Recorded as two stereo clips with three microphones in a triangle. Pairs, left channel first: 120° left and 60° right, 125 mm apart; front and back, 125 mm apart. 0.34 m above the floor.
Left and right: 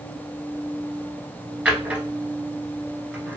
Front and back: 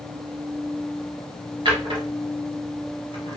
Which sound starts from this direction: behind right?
A drawer, at 1.6 s.